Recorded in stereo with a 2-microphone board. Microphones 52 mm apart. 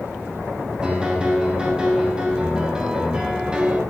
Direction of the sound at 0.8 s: 15° right (ahead or behind).